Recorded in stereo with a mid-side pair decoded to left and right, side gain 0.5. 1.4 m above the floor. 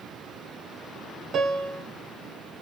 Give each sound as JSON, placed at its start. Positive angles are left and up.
{"t": 1.3, "sound": "a piano", "azimuth_deg": -50, "distance_m": 0.9}